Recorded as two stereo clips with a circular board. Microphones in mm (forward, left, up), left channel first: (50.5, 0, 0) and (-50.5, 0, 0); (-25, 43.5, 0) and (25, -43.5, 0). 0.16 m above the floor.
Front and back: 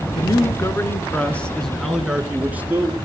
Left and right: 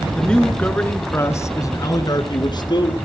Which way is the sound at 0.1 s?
35° left.